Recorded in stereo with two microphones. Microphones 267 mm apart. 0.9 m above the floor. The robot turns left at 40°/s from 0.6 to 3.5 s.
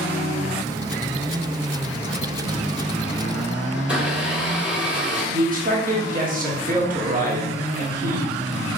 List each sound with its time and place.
3.8 s a blender: 5° right (ahead or behind), 1.4 m
5.3 s a man speaking: 30° right (ahead or behind), 1.2 m